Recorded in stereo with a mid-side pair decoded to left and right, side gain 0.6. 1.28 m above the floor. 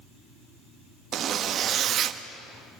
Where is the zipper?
50° right, 1.4 m.